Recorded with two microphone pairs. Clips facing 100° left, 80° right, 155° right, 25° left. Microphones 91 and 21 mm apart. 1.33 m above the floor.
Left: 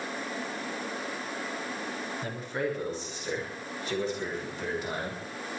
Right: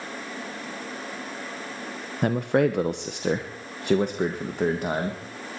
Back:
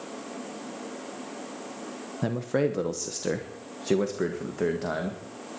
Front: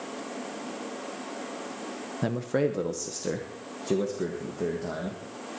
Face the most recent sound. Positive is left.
turn(degrees=-115)